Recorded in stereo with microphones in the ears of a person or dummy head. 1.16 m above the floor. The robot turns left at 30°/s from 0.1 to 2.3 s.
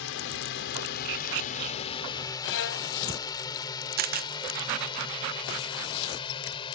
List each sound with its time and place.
0.0 s a drone: 70° left (ahead or behind); by 6.8 s 25° left (ahead or behind)
2.4 s a violin: 75° left (ahead or behind)
4.0 s a camera shutter: 50° right (ahead or behind)